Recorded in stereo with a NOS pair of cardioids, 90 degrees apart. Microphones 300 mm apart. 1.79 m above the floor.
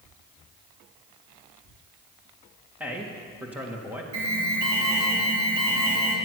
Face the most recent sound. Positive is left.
turn(degrees=-70)